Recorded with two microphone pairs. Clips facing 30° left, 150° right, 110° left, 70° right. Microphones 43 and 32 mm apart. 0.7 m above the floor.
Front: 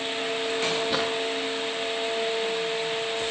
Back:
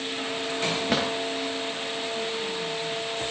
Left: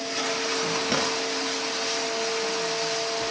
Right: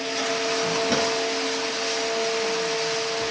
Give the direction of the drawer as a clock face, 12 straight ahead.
5 o'clock.